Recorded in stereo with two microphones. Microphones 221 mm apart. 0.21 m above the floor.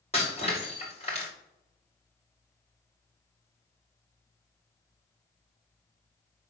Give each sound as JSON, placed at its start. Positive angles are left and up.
{"t": 0.1, "sound": "breaking glass", "side_deg": 30, "distance_m": 6.0}